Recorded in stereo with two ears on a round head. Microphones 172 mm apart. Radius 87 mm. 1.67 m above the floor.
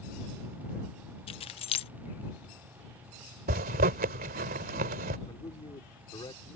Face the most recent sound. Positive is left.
turn(degrees=25)  # may be behind; listen again after turning